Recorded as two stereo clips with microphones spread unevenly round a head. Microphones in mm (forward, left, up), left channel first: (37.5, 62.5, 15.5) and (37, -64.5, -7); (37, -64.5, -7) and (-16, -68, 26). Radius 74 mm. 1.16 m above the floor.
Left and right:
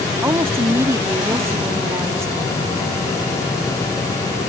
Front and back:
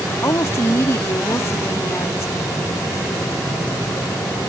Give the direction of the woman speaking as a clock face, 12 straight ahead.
1 o'clock.